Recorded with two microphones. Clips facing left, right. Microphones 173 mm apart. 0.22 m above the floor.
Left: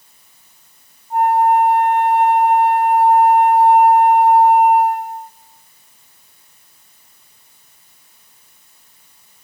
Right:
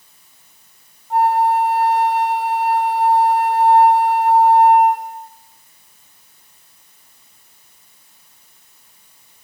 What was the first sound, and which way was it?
A flute, 80° right.